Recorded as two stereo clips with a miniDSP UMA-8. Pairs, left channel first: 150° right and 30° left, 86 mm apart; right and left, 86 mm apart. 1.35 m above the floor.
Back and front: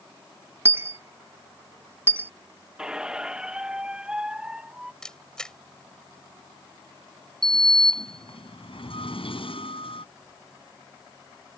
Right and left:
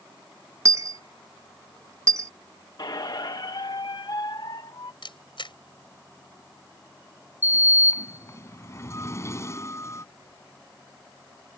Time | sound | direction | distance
0.7 | a dropped coin | 75° left | ?
2.8 | a squeak | 50° right | ?
5.0 | a camera shutter | 65° right | ?
7.4 | a sliding door | 150° right | ?